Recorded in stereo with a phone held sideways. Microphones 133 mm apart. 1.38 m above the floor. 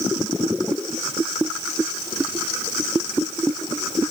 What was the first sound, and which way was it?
Only background noise.